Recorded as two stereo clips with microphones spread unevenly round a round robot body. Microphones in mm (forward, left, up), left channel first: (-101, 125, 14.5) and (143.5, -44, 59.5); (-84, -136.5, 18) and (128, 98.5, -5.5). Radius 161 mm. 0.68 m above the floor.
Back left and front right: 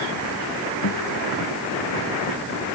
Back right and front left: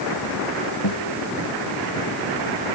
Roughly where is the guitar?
Behind.